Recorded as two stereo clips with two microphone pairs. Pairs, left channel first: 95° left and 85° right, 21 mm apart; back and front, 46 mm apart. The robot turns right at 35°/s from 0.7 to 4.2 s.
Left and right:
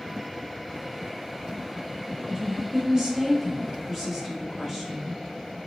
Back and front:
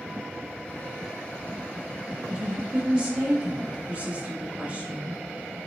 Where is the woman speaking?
55° right, 1.4 m; by 5.2 s 10° left, 1.4 m.